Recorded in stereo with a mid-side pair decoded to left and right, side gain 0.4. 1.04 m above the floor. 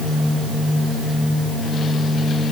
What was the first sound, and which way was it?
Only background noise.